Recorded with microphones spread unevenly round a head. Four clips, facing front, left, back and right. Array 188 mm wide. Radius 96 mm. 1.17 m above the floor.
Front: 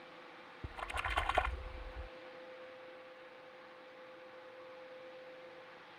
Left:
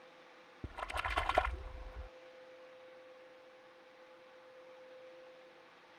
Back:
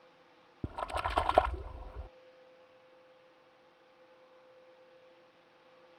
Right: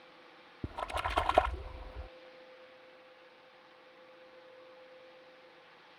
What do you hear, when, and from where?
0.6 s a splash: 150° right